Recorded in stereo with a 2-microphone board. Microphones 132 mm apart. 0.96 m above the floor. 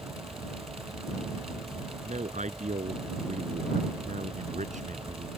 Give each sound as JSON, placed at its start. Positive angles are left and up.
{"t": 2.0, "sound": "a man speaking", "side_deg": -65}